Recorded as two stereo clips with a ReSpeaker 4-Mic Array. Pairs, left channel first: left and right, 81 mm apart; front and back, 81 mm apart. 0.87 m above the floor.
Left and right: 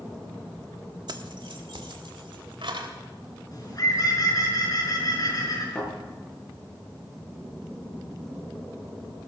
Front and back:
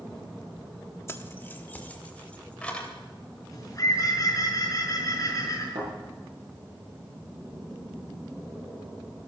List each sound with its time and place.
1.1 s keys jangling: 55° right, 1.2 m; by 2.9 s 80° right, 3 m
3.5 s a bird: 50° left, 6 m
5.8 s a thud: 160° left, 7 m